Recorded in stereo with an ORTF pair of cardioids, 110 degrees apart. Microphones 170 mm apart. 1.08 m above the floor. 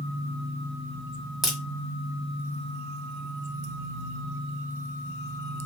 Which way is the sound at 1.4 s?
Straight ahead.